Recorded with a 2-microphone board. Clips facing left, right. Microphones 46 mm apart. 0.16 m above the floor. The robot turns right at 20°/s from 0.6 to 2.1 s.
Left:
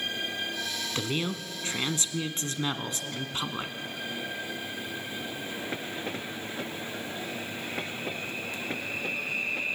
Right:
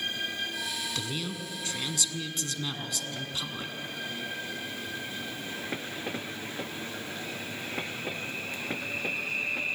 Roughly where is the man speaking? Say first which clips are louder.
Left 4 dB; left.